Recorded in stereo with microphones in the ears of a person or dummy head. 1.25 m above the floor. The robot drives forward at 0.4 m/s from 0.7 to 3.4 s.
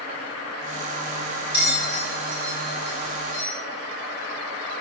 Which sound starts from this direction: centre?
A bell, at 1.5 s.